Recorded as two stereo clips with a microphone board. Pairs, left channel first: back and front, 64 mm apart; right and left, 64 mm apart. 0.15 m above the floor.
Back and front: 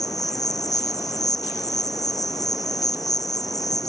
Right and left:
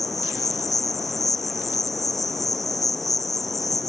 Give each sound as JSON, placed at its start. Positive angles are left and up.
{"t": 0.0, "sound": "an insect", "azimuth_deg": -175}